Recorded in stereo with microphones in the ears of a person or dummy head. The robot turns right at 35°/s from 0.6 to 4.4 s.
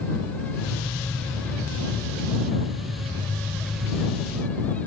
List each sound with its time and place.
Only background noise.